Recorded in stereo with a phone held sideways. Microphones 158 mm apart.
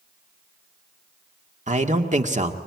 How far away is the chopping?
No chopping in this recording.